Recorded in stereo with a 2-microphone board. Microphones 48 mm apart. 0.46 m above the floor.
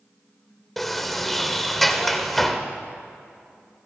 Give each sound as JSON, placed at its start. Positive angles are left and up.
{"t": 0.8, "sound": "a sliding door", "side_deg": 5, "distance_m": 1.6}